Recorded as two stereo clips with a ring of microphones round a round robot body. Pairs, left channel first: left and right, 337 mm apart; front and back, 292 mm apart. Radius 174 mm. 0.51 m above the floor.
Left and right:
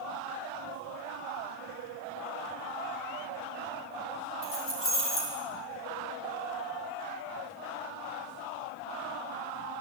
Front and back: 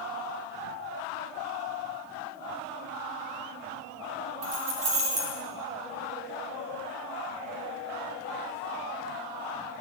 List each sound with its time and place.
4.4 s keys jangling: 145° left, 3 m